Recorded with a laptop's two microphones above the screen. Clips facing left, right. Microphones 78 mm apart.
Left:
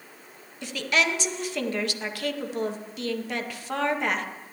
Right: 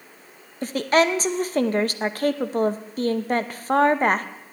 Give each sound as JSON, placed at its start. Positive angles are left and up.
{"t": 0.6, "sound": "a woman speaking", "side_deg": -40, "distance_m": 0.5}